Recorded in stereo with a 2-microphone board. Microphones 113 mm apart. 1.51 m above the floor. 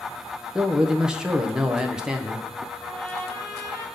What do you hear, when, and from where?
0.6 s a man speaking: 5° right (ahead or behind), 0.8 m
2.8 s a trumpet: 30° left (ahead or behind), 5 m